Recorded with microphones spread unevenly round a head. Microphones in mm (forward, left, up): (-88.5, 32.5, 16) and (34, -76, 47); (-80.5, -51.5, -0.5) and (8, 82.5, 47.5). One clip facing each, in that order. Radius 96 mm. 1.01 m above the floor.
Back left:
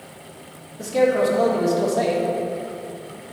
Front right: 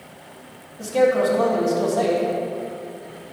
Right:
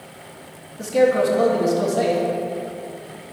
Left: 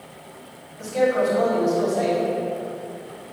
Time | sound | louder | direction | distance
0.8 | a man speaking | even, right 3 dB | 150° right | 1.9 m